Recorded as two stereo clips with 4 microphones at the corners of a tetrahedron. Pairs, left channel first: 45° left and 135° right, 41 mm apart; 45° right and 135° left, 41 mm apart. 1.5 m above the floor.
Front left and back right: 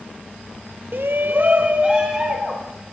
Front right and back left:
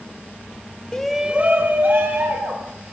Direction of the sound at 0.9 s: 115° right.